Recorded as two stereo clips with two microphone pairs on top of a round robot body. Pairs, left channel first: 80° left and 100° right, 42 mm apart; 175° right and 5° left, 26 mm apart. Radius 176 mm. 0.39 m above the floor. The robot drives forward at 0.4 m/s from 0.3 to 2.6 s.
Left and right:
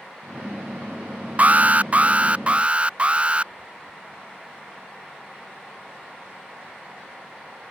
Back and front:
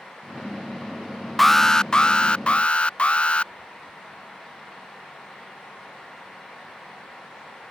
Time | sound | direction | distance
1.4 | an alarm | 120° right | ?